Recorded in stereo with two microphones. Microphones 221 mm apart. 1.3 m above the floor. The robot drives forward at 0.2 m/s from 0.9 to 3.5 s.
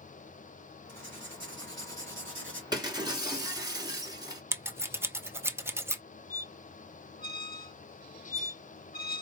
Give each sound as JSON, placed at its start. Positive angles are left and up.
{"t": 0.9, "sound": "writing", "side_deg": -60, "distance_m": 2.5}
{"t": 2.7, "sound": "breaking glass", "side_deg": -20, "distance_m": 1.4}
{"t": 4.5, "sound": "scissors", "side_deg": -10, "distance_m": 0.5}
{"t": 6.3, "sound": "a squeak", "side_deg": 45, "distance_m": 0.6}